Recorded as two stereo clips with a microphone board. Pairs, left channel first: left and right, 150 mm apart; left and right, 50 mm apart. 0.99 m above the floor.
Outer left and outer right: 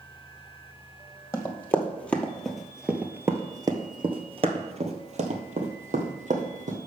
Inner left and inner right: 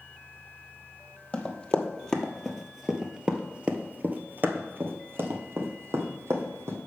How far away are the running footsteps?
About 1.7 m.